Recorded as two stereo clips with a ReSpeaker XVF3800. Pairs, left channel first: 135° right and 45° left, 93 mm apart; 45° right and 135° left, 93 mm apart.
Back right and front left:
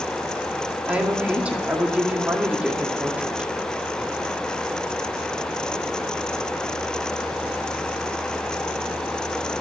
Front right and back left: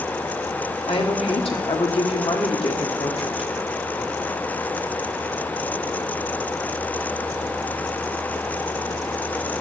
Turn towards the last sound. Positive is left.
turn(degrees=-30)